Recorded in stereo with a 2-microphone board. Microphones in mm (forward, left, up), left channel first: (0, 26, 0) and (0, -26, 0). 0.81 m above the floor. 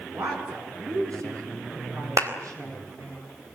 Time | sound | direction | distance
0.1 | a woman speaking | 80° right | 10 m
2.2 | a clap | 80° right | 4 m